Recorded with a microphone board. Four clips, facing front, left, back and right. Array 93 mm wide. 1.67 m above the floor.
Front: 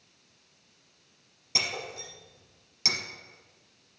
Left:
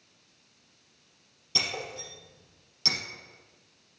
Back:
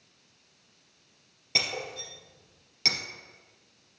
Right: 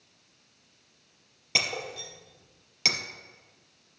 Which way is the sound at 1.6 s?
110° right.